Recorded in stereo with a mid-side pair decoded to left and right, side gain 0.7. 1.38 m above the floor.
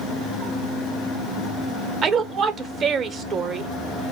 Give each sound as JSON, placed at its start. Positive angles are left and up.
{"t": 2.0, "sound": "a woman speaking", "azimuth_deg": -40, "distance_m": 0.7}